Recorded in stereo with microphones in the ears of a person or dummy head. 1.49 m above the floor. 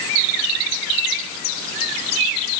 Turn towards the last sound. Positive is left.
No sound to turn to.